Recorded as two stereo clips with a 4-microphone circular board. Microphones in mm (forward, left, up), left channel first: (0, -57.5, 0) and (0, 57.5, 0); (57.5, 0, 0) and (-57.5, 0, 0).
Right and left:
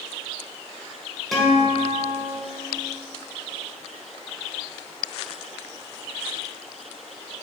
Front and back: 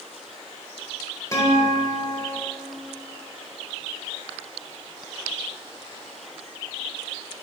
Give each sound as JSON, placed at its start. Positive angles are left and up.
{"t": 1.3, "sound": "a guitar", "azimuth_deg": -5, "distance_m": 1.4}